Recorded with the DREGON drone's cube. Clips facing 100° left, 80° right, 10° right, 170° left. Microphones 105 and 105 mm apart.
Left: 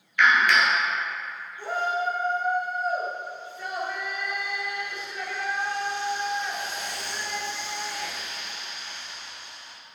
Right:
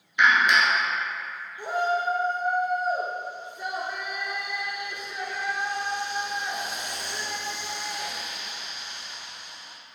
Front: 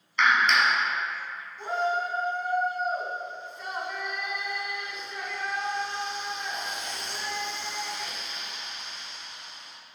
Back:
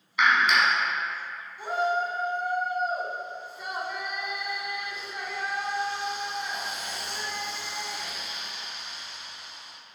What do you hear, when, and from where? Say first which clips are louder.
0.2 s a clap: even, even; 115° right, 1.1 m
1.6 s a shout: right 2 dB, back 1 dB; 120° right, 1.1 m